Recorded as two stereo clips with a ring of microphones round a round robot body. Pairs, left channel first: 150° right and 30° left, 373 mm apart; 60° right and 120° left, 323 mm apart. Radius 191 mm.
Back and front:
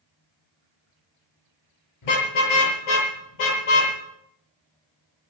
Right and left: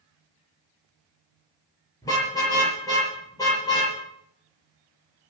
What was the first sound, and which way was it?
A car horn, 140° right.